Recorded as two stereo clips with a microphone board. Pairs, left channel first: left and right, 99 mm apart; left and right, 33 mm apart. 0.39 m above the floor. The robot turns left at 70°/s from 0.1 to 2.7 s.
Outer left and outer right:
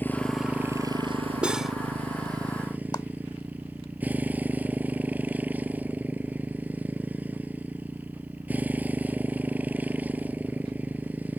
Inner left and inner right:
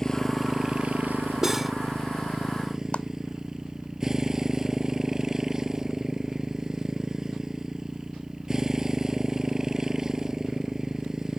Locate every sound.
0.0 s a motorcycle: 20° left; by 11.4 s 165° right
1.4 s cutlery clinking: 10° right (ahead or behind); by 1.8 s centre (ahead or behind)
2.9 s a clap: 40° left (ahead or behind)